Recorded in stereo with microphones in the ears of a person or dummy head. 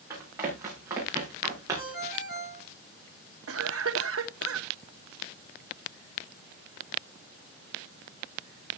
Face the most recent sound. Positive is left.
turn(degrees=-65)  # may be behind; listen again after turning